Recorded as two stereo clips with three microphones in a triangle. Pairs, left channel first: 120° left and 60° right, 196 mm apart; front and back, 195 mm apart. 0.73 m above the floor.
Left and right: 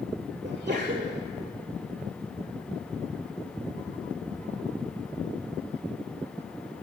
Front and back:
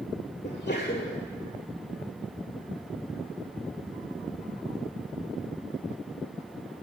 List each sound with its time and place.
0.4 s a sneeze: 30° right, 1.7 m